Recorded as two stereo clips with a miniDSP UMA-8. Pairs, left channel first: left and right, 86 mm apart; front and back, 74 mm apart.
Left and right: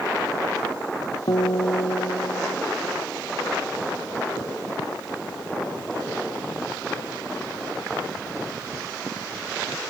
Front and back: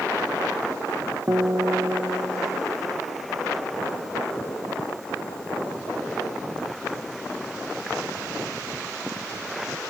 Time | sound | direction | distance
1.3 | a guitar | 125° left | ?